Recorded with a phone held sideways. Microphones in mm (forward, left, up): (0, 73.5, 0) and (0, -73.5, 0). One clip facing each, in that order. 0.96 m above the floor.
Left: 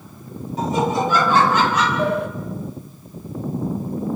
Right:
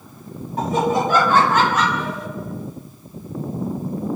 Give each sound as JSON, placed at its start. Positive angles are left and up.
{"t": 0.6, "sound": "laughter", "side_deg": -55, "distance_m": 6.0}
{"t": 2.0, "sound": "a sliding door", "side_deg": 60, "distance_m": 1.3}